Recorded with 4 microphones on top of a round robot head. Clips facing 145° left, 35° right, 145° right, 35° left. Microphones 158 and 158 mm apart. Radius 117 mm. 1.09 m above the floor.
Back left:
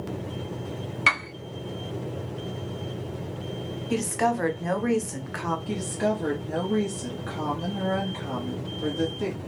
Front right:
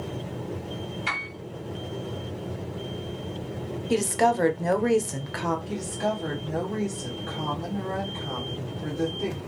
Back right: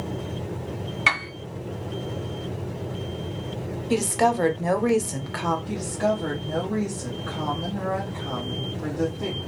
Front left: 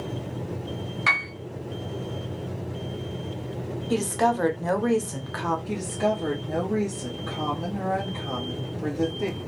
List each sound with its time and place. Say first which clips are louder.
1.1 s a piano: back left 4 dB, back right 2 dB; 150° left, 1.0 m
3.9 s a woman speaking: front right 3 dB, back right 2 dB; 70° right, 0.7 m
5.7 s a woman speaking: back left 2 dB, even; 115° left, 1.2 m